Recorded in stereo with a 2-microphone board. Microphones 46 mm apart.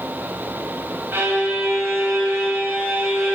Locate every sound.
1.1 s a violin: 55° right (ahead or behind), 1.7 m